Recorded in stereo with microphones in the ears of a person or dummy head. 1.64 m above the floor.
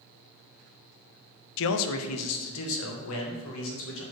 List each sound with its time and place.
1.6 s a man speaking: 65° left (ahead or behind), 0.5 m; by 4.0 s 75° left (ahead or behind), 2 m